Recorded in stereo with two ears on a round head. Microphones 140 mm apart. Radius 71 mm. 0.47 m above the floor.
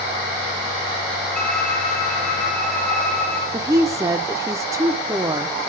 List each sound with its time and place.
1.4 s a violin: 5° left (ahead or behind), 3 m
3.5 s a woman speaking: 20° right (ahead or behind), 0.8 m